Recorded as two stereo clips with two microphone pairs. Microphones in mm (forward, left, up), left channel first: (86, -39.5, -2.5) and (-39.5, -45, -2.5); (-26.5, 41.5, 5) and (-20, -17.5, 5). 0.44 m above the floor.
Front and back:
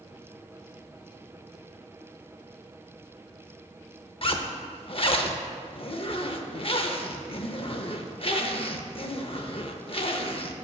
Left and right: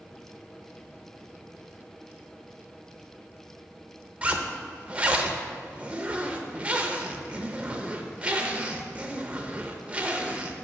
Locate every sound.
4.2 s a zipper: 20° right, 0.6 m